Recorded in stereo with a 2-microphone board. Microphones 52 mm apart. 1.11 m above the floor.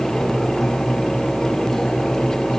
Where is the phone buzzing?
No phone buzzing in this recording.